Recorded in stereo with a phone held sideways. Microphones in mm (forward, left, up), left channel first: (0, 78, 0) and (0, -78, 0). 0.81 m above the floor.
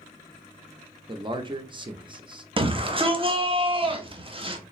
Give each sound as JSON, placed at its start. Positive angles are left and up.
{"t": 1.1, "sound": "a man speaking", "side_deg": -30, "distance_m": 0.5}
{"t": 2.6, "sound": "a shout", "side_deg": -35, "distance_m": 0.6}